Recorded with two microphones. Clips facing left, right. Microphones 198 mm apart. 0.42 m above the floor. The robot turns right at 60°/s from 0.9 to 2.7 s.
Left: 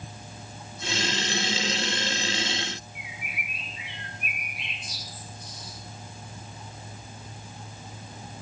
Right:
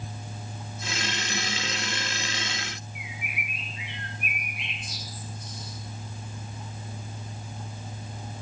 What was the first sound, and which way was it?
A bird, 60° right (ahead or behind).